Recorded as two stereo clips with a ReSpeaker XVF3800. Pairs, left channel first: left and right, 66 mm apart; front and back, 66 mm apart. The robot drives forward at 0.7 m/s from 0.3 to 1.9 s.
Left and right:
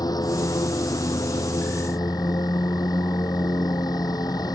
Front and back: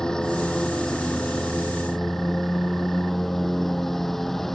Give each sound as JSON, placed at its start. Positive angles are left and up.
{"t": 0.0, "sound": "a lawn mower", "azimuth_deg": 80}